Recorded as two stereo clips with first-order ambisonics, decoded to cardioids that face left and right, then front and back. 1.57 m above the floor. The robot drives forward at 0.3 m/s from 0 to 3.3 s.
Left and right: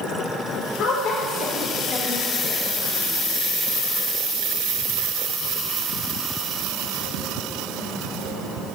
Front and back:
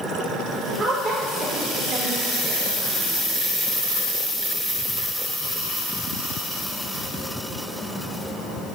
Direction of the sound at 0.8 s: 110° left.